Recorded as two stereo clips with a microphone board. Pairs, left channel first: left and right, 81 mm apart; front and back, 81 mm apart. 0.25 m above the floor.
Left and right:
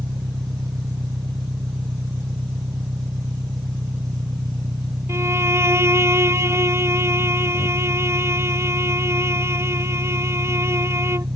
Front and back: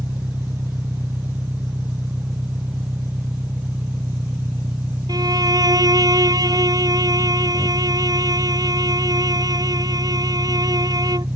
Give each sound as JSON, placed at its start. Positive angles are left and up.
{"t": 0.0, "sound": "an engine running", "azimuth_deg": -130}
{"t": 5.1, "sound": "a violin", "azimuth_deg": -145}